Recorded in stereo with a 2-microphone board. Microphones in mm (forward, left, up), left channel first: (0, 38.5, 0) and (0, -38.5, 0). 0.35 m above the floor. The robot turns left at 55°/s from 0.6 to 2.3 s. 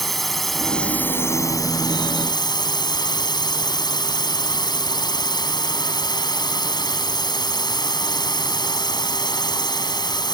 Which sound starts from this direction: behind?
A drone, at 0.0 s.